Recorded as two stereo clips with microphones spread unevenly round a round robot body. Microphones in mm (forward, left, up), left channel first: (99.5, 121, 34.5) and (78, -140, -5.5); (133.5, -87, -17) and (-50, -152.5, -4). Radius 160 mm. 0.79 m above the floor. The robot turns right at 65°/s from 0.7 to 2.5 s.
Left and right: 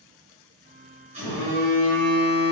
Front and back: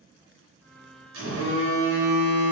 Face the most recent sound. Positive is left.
turn(degrees=-80)